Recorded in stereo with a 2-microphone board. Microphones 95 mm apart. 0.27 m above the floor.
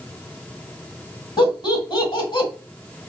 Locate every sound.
1.4 s laughter: 45° left (ahead or behind), 1.8 m